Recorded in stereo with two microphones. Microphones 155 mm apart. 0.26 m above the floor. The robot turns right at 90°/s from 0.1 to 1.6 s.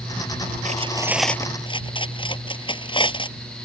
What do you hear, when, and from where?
0.7 s cutlery clinking: 50° right (ahead or behind); by 3.4 s 35° left (ahead or behind)